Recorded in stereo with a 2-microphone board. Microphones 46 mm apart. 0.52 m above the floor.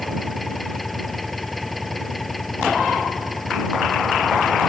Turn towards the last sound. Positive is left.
turn(degrees=5)  # may be behind; listen again after turning